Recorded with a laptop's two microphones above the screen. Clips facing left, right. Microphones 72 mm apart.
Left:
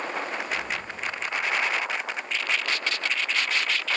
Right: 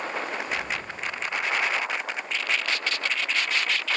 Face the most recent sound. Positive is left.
turn(degrees=-65)  # may be behind; listen again after turning